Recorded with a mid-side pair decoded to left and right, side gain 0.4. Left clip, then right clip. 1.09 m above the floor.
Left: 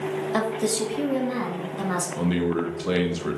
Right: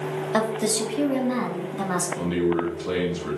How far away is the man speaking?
About 1.0 m.